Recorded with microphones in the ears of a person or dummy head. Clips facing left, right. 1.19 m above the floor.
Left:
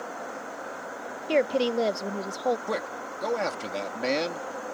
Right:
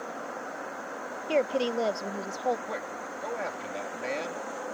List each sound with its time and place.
1.3 s a woman speaking: 20° left (ahead or behind)
2.7 s a man speaking: 60° left (ahead or behind)